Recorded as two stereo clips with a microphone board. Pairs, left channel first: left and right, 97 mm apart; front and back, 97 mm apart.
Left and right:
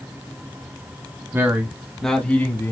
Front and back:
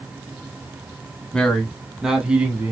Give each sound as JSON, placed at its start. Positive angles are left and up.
{"t": 1.3, "sound": "a man speaking", "azimuth_deg": -65, "distance_m": 1.1}